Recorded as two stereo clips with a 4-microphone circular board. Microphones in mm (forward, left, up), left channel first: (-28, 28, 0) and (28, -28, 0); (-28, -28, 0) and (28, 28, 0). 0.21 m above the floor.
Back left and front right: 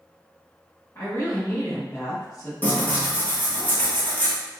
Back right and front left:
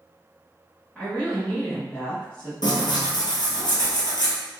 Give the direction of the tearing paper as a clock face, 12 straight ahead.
5 o'clock.